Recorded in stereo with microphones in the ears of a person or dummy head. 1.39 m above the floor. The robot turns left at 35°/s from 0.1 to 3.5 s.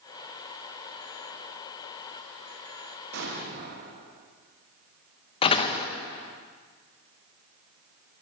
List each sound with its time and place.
3.1 s an explosion: 70° right (ahead or behind), 1.5 m; by 4.3 s 60° right (ahead or behind), 1.5 m
5.4 s a door slam: 25° left (ahead or behind), 0.9 m